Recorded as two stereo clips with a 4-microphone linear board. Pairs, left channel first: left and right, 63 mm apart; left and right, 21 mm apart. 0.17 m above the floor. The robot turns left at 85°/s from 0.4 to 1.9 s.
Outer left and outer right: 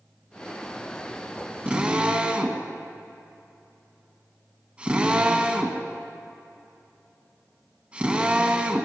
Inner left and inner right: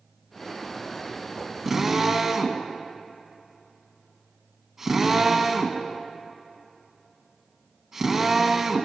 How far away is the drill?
About 1.7 m.